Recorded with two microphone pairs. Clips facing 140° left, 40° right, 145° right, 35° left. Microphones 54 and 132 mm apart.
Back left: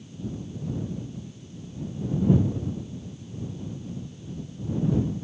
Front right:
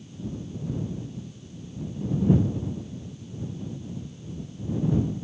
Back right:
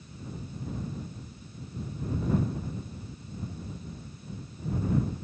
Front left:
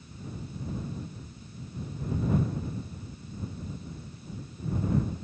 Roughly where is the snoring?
I don't hear snoring.